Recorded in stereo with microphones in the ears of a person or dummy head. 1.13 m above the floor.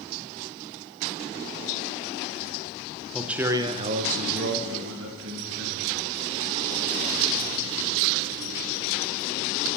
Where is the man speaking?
Centre (ahead or behind), 0.9 m; by 6.2 s 80° right, 2.5 m.